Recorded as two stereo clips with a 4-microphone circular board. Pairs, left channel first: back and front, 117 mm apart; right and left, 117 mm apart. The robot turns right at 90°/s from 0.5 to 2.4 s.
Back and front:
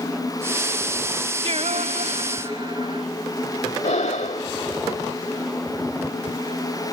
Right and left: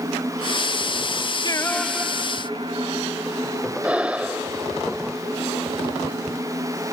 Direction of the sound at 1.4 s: 40° right.